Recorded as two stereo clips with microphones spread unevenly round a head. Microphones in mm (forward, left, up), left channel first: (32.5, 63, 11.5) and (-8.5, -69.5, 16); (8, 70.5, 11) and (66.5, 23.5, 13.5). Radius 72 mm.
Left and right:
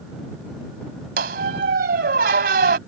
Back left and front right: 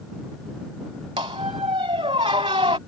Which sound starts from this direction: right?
A squeak, at 1.2 s.